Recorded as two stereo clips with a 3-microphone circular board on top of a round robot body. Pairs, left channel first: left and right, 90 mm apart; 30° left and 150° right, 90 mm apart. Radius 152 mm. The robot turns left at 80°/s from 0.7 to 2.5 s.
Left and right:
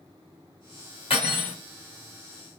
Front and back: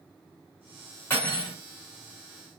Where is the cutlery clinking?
100° left, 2.5 m; by 1.6 s 65° left, 2.5 m.